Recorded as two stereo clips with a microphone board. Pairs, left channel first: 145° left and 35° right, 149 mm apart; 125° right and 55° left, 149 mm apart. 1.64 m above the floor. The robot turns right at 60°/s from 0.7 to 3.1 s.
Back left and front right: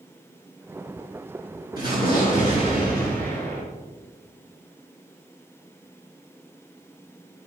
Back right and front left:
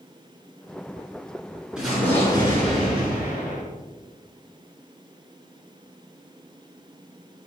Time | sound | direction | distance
1.8 | an explosion | 140° left | 5.5 m